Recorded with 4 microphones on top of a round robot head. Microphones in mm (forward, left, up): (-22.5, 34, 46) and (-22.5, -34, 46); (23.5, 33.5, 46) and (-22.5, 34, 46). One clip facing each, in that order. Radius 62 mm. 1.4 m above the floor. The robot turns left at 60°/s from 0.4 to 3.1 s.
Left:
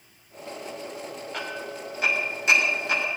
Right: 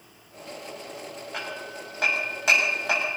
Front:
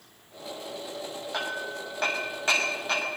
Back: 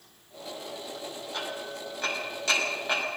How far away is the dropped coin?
I don't hear a dropped coin.